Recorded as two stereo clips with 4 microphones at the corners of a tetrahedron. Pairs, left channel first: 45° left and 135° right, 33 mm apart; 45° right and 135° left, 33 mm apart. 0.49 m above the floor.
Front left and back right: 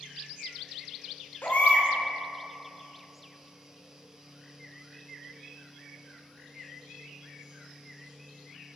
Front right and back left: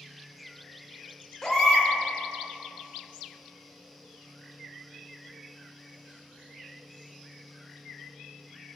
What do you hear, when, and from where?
1.4 s a baby crying: 25° left, 0.6 m